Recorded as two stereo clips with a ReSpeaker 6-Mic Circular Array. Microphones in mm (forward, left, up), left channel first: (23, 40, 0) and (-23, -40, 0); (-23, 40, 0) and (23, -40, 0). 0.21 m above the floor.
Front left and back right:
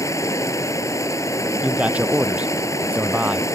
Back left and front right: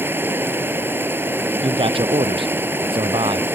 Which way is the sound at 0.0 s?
5° left.